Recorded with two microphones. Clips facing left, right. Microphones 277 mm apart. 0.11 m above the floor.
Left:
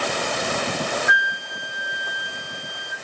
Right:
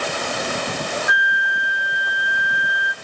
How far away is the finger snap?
I don't hear a finger snap.